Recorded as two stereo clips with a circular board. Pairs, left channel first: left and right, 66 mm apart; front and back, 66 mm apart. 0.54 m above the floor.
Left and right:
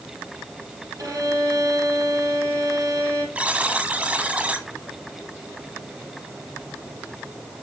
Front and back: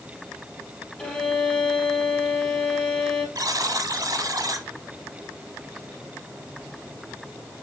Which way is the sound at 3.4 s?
160° right.